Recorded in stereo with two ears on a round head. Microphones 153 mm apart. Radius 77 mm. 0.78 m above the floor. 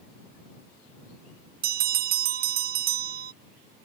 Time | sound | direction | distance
1.6 | a bell | 60° right (ahead or behind) | ?